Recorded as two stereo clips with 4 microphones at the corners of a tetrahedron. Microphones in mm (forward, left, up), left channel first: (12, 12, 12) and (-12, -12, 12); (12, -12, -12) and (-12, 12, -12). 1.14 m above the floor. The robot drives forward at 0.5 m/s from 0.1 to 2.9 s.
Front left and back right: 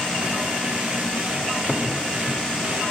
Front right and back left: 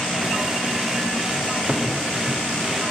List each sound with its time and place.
1.7 s a cupboard door: 105° left, 0.8 m; by 1.9 s 110° left, 0.8 m